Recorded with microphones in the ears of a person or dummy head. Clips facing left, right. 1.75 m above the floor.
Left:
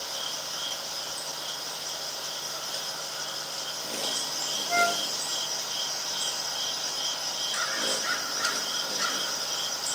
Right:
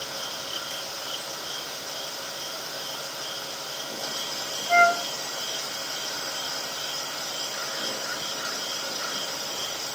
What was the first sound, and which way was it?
A flute, 65° right (ahead or behind).